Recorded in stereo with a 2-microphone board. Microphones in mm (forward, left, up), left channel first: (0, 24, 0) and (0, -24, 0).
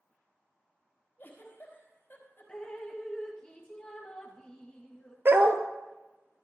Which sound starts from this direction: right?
A dog barking, at 5.2 s.